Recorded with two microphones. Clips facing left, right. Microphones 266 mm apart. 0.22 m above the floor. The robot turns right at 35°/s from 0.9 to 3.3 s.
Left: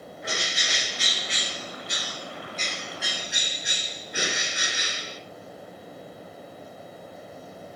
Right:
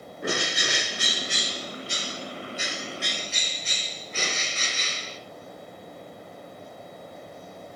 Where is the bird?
70° right, 2.0 m; by 5.2 s 15° left, 2.0 m.